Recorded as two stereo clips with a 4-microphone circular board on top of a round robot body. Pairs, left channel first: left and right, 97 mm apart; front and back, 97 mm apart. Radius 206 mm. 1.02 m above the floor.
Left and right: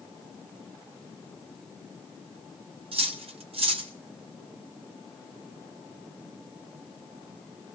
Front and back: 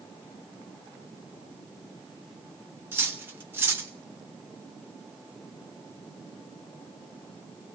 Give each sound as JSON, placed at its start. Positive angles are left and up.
{"t": 2.9, "sound": "cutlery clinking", "azimuth_deg": -110, "distance_m": 0.8}